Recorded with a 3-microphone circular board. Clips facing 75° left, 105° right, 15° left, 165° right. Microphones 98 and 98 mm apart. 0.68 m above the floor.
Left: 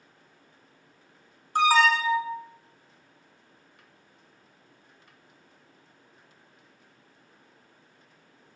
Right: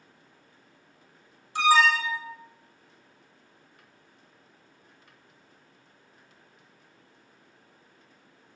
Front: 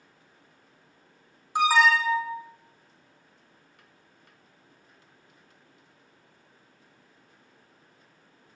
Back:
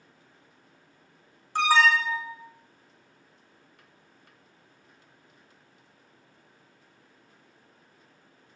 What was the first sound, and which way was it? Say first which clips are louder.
An alarm: left 1 dB, front 1 dB; 90° left.